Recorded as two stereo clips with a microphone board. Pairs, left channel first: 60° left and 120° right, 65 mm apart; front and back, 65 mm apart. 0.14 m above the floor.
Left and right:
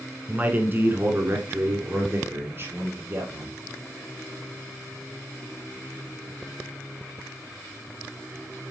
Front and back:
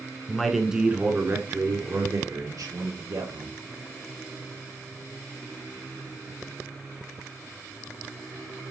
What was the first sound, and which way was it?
A man speaking, 75° right.